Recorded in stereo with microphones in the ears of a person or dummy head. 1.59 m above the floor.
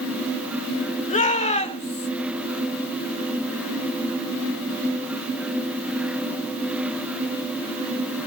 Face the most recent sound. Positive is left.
turn(degrees=30)  # may be behind; listen again after turning